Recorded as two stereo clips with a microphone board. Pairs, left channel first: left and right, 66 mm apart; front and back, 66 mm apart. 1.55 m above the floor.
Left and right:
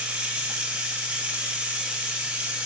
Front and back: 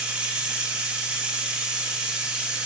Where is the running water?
125° right, 0.9 m.